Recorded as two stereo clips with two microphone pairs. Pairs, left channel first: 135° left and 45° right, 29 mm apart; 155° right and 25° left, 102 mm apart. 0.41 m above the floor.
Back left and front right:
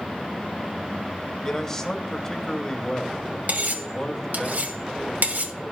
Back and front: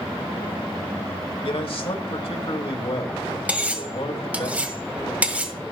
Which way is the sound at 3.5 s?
50° right.